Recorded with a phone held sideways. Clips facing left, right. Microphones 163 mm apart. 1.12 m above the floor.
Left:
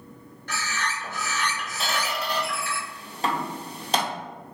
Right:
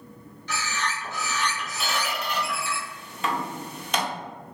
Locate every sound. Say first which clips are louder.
0.5 s a bird: right 1 dB; 55° left (ahead or behind), 1.1 m
1.8 s a squeak: left 1 dB; 35° left (ahead or behind), 0.5 m